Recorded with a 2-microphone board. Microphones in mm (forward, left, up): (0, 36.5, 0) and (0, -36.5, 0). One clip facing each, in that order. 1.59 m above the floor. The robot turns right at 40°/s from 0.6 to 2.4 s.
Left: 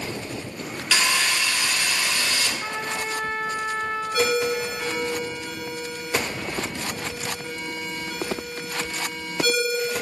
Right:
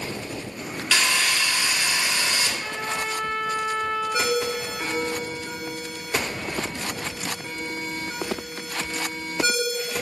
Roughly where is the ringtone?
Right.